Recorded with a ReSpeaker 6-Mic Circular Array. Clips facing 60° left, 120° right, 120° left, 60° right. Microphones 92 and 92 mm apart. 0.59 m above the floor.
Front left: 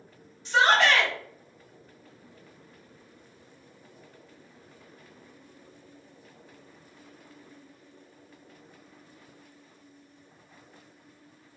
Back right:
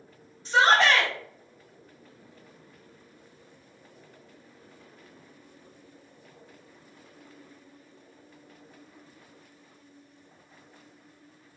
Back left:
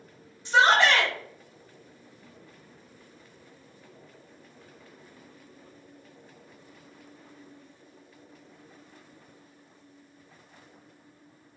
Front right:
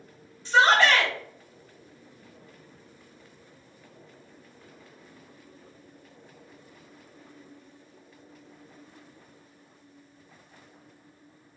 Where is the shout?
170° right, 1.8 m.